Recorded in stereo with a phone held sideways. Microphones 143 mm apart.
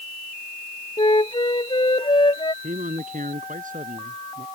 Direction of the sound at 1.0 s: 35° left (ahead or behind).